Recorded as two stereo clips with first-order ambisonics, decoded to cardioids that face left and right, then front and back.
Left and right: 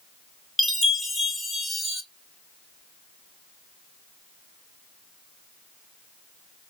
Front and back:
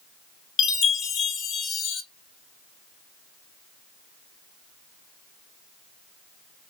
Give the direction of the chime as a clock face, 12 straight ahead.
12 o'clock.